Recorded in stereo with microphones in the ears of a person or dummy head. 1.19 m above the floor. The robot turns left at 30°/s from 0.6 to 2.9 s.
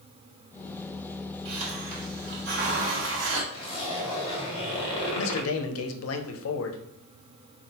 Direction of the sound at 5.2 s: 70° left (ahead or behind).